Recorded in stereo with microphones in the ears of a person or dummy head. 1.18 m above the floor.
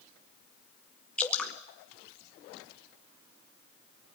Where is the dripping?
5° left (ahead or behind), 1.5 m.